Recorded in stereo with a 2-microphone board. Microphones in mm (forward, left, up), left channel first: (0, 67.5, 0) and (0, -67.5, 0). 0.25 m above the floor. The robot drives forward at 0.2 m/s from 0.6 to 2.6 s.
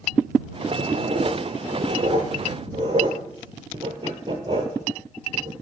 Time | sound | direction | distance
0.8 | writing | 55° right (ahead or behind) | 0.6 m